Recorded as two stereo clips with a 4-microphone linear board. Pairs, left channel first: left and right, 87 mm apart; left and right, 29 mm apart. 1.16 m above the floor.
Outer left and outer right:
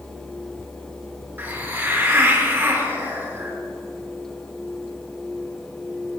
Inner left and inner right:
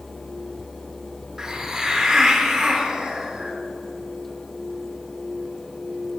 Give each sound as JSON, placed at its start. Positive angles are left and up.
{"t": 1.4, "sound": "a hiss", "side_deg": -20, "distance_m": 0.7}